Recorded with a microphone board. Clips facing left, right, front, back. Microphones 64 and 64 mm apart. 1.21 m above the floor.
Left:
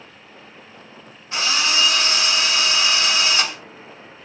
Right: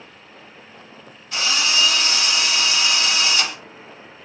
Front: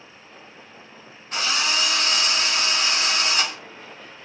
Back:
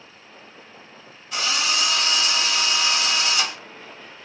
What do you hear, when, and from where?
1.3 s a drill: 35° left, 1.2 m